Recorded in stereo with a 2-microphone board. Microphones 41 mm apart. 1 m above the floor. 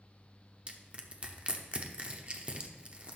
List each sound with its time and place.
0.7 s crushing: 30° right (ahead or behind), 0.9 m